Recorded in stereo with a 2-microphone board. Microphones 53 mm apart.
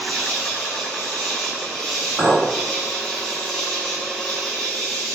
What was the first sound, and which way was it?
An insect, 5° left (ahead or behind).